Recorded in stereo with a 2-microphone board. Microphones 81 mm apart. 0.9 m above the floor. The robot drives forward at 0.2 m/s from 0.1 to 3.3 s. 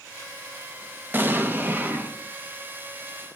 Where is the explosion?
25° right (ahead or behind), 0.9 m.